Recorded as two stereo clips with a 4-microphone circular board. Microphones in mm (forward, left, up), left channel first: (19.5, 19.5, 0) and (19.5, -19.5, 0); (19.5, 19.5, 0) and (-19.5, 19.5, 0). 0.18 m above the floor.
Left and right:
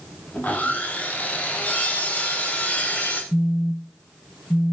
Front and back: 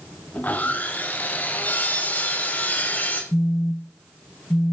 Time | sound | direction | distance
0.3 | sawing | 40° left | 6.5 m
3.3 | a phone buzzing | 35° left | 2 m